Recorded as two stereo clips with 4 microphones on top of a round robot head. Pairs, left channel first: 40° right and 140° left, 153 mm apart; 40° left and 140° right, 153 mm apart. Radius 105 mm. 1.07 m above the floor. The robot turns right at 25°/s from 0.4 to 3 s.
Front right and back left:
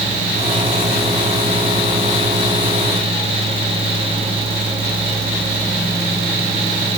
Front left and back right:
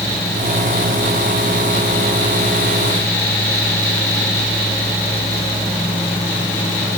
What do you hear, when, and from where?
Only background noise.